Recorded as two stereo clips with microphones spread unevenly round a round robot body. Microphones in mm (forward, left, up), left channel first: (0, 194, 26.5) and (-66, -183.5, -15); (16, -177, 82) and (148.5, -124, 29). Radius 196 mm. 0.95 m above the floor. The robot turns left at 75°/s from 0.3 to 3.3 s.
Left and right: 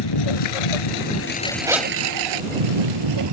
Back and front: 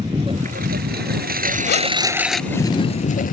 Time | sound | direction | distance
0.0 | a lawn mower | 105° left | ?
1.7 | a zipper | straight behind | ?